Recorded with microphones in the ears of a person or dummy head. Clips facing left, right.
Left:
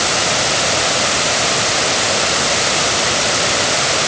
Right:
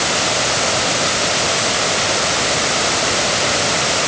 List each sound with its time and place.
Only background noise.